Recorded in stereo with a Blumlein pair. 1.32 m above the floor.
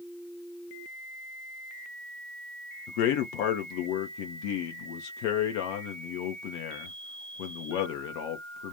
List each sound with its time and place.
2.9 s a man speaking: 45° left, 0.7 m